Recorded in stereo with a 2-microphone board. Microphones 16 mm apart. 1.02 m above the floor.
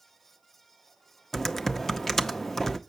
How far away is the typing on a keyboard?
About 0.6 m.